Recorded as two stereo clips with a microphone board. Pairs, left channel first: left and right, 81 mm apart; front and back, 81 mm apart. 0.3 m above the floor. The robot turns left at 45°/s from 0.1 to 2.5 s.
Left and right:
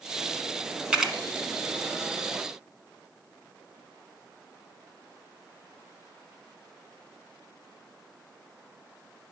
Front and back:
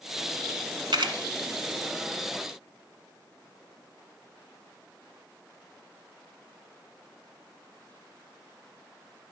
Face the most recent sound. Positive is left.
turn(degrees=125)